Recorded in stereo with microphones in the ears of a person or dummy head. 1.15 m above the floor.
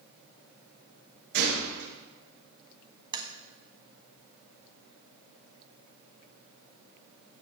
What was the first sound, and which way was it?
A gunshot, 60° right (ahead or behind).